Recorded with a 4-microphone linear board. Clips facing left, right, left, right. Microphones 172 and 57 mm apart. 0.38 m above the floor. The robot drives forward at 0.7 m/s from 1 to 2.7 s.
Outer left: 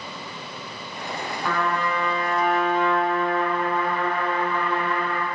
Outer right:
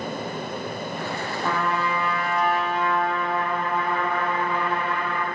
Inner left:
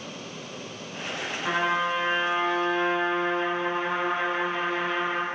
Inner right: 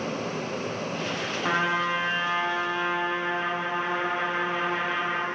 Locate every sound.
1.4 s a trumpet: 20° right (ahead or behind), 0.5 m; by 5.2 s 10° right (ahead or behind), 1.3 m